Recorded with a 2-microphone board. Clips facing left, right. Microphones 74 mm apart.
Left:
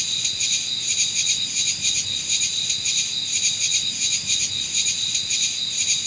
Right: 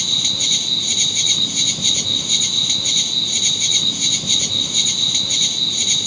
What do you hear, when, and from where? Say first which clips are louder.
0.0 s an insect: right 7 dB; 55° right (ahead or behind)